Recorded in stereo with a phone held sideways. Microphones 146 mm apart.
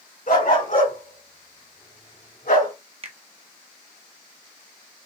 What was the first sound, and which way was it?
A dog barking, 70° left (ahead or behind).